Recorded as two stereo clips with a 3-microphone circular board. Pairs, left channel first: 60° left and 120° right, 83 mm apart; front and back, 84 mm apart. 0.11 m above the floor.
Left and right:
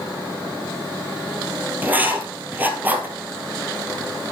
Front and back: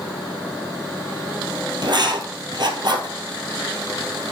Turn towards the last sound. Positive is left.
turn(degrees=175)